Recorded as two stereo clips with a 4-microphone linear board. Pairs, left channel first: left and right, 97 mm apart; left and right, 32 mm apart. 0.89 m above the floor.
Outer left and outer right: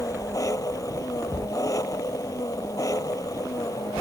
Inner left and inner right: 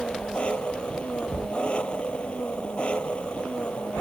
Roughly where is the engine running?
Left.